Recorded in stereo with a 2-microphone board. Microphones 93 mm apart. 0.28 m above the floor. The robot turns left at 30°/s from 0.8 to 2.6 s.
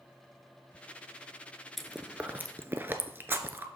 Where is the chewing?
Centre (ahead or behind), 0.6 m; by 3.6 s 25° right (ahead or behind), 0.6 m.